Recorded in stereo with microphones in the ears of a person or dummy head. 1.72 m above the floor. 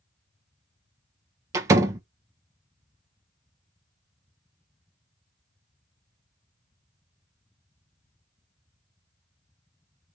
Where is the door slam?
15° right (ahead or behind), 0.7 m.